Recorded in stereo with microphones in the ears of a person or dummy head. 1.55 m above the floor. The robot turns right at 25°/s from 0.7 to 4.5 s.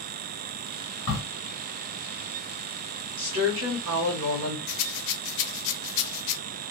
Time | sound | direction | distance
1.1 | a crack | 20° left (ahead or behind) | 1.6 m
3.2 | a woman speaking | 130° right | 1.2 m
4.7 | a rattle | 70° left (ahead or behind) | 0.7 m